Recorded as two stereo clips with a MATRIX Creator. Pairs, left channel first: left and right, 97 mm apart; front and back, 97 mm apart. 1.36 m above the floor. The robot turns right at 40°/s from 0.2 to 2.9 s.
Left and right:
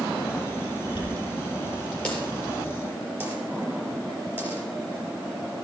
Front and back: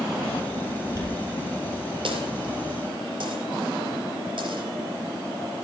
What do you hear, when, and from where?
0.9 s a dropped coin: 125° left, 4.5 m; by 5.6 s 155° right, 4.5 m